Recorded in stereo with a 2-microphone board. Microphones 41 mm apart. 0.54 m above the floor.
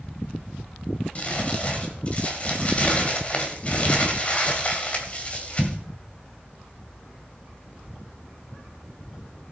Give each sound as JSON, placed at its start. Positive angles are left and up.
{"t": 1.1, "sound": "crumpling", "side_deg": 30, "distance_m": 2.0}